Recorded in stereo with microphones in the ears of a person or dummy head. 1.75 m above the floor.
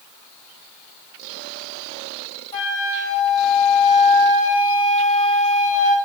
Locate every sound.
2.5 s a flute: 35° left (ahead or behind), 6 m